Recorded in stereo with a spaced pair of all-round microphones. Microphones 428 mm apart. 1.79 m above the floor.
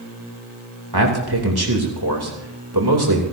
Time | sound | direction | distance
0.9 | a man speaking | 65° right (ahead or behind) | 2.5 m